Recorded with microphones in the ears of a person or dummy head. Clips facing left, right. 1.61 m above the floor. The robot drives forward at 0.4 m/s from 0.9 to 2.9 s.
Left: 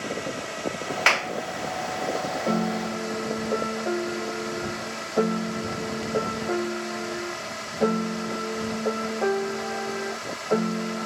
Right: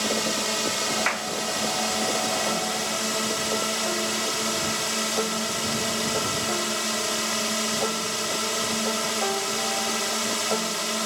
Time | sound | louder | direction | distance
0.0 | a drone | right 4 dB | 80° right | ?
1.1 | a clap | left 3 dB | 55° left (ahead or behind) | ?
2.5 | a piano | left 3 dB | 35° left (ahead or behind) | ?